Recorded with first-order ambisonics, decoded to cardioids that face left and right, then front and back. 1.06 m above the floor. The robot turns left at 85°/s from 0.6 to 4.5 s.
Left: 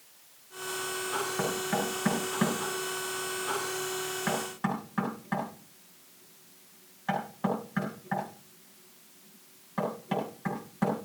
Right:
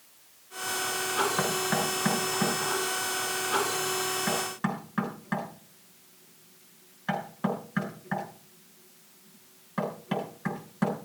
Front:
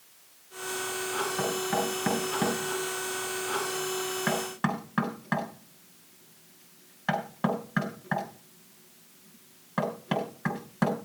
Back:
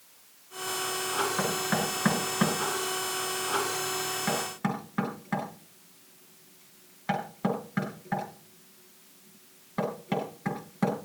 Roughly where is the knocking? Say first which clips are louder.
Right 3 dB, even; right.